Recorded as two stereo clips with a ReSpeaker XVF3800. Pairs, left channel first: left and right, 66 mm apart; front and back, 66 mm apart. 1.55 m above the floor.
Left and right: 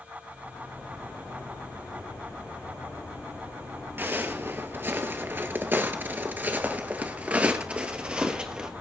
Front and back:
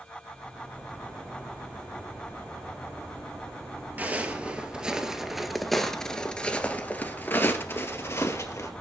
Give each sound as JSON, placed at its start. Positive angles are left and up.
{"t": 4.0, "sound": "footsteps", "azimuth_deg": -130, "distance_m": 2.0}